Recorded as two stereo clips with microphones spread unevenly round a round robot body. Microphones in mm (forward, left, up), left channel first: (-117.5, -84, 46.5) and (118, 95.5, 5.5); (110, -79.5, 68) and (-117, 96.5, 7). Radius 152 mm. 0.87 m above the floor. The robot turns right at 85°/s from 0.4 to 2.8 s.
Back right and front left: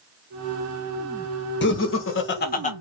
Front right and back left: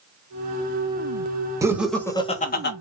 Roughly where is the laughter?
Behind.